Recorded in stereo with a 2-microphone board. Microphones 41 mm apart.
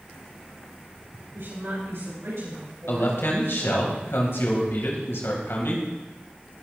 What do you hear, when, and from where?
1.3 s a woman speaking: 80° right, 7 m; by 3.9 s 85° right, 10 m
2.9 s a man speaking: 80° left, 3 m